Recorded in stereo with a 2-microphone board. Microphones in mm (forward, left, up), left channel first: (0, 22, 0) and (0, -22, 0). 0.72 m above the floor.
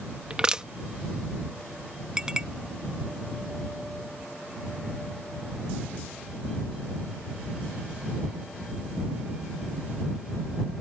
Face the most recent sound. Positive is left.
turn(degrees=-15)  # may be behind; listen again after turning